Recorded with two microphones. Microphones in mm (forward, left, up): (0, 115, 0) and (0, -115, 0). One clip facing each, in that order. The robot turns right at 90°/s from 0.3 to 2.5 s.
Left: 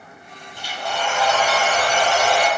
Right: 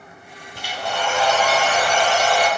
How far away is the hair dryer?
About 1.7 m.